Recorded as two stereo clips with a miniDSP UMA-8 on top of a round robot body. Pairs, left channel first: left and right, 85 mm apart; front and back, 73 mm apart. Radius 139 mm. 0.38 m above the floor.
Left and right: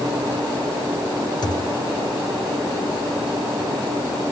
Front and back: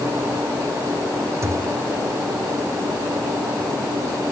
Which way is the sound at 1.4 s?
130° left.